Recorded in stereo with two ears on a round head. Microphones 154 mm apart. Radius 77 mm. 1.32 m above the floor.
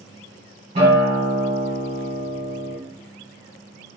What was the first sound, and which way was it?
A guitar, 35° right (ahead or behind).